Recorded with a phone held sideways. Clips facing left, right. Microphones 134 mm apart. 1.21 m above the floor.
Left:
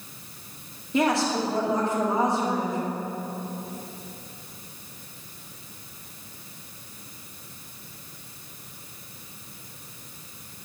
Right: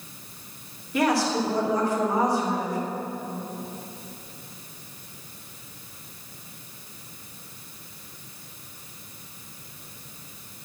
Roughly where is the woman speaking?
Left.